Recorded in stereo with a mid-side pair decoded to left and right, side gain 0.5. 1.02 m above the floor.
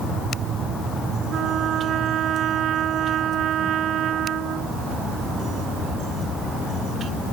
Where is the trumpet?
60° right.